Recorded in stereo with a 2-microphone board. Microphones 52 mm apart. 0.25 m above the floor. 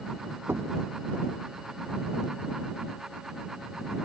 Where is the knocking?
50° right (ahead or behind).